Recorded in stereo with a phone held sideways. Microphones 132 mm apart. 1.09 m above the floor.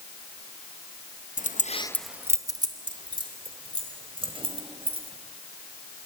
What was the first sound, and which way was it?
Keys jangling, 75° left (ahead or behind).